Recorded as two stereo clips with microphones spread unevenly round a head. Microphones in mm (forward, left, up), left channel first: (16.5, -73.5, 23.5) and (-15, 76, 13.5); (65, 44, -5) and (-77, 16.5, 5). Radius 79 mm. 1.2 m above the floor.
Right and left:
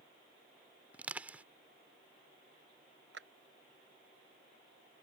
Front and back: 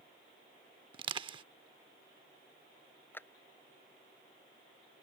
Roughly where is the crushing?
Behind.